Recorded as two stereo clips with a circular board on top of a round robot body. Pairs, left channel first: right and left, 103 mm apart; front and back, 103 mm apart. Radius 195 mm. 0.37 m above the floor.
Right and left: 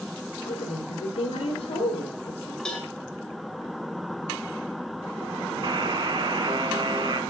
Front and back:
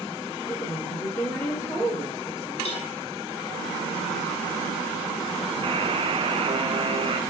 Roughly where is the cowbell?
Ahead.